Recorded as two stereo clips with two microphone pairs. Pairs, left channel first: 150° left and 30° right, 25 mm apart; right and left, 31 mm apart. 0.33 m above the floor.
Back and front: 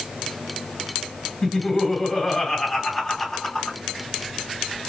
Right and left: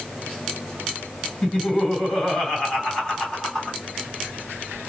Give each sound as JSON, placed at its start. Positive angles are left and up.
{"t": 1.4, "sound": "laughter", "azimuth_deg": -150, "distance_m": 2.0}